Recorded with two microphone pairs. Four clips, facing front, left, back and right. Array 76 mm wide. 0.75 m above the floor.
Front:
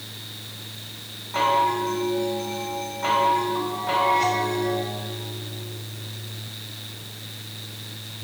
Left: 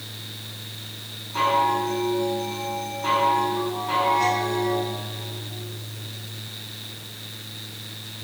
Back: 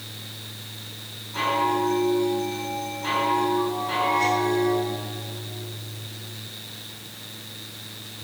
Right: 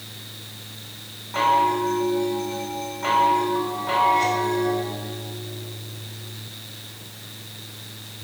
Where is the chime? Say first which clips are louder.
Right 2 dB, front 2 dB; 40° right, 4.5 m.